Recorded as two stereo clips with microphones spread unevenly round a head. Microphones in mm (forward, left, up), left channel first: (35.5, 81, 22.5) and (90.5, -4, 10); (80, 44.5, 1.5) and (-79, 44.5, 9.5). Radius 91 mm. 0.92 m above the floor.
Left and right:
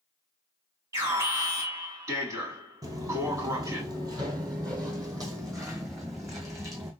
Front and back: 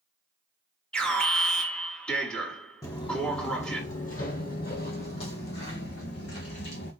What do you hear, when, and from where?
0.9 s an alarm: 75° right, 1.4 m
2.8 s footsteps: 50° right, 1.0 m; by 6.9 s straight ahead, 2.5 m